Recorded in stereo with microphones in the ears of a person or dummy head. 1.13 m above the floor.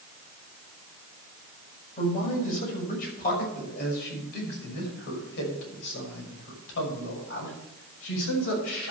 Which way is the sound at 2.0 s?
45° left (ahead or behind).